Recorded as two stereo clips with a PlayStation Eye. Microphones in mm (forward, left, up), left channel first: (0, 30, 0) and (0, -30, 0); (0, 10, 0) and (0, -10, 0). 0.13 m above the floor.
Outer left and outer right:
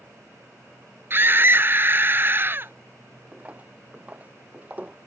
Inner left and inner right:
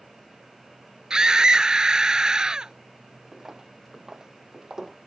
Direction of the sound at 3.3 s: 25° right (ahead or behind).